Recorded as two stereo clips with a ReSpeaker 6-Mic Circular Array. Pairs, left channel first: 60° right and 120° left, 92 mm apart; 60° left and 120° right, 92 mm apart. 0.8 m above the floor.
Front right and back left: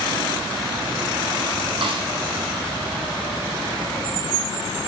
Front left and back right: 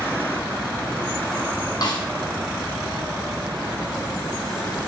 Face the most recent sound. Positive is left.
turn(degrees=105)